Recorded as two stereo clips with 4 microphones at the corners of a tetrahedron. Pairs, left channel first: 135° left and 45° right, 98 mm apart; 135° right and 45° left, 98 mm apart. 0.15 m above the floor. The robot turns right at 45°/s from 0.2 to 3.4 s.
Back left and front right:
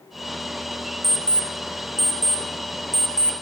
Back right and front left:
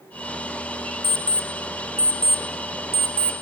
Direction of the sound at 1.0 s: 105° right.